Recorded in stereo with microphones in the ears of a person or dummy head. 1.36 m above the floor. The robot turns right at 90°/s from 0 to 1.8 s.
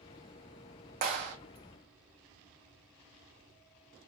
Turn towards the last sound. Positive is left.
turn(degrees=-65)